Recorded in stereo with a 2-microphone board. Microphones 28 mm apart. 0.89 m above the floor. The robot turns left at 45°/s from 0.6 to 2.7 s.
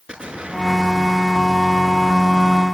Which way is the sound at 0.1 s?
145° right.